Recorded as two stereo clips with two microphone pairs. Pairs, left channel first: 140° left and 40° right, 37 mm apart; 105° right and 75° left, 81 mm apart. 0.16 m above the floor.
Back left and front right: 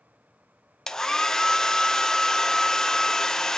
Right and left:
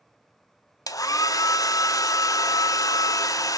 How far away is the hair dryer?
About 0.7 m.